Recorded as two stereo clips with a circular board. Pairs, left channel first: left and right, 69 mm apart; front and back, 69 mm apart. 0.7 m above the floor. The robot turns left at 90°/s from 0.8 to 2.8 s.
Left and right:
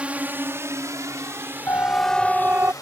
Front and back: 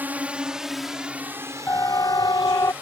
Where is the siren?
50° left; by 2.7 s 40° right.